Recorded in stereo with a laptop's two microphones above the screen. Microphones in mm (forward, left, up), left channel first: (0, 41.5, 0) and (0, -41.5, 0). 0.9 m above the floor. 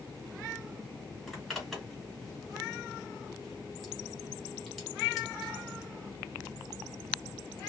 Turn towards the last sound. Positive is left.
turn(degrees=0)  # may be behind; listen again after turning